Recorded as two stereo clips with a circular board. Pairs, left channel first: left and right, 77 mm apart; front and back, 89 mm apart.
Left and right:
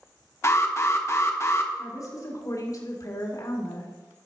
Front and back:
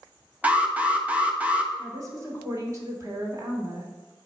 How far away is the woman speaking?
About 3 m.